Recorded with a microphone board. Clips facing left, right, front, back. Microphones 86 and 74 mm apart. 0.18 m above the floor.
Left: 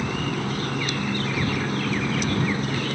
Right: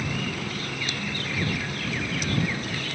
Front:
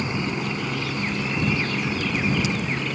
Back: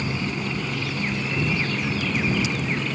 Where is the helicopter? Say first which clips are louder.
Left 4 dB, front 1 dB; 60° left; by 3.0 s 80° left.